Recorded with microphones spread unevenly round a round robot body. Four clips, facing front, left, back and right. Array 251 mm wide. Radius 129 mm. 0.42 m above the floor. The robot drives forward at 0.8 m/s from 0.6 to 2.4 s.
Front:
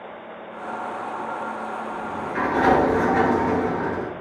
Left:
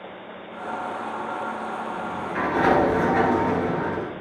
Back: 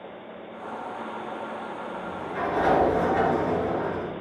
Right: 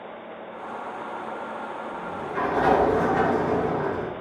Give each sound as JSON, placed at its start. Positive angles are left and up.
{"t": 1.9, "sound": "a sliding door", "azimuth_deg": 50, "distance_m": 3.5}